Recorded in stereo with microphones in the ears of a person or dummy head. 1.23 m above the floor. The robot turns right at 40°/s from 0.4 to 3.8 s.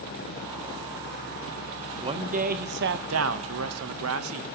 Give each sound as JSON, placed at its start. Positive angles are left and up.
{"t": 2.0, "sound": "a man speaking", "azimuth_deg": -155, "distance_m": 1.1}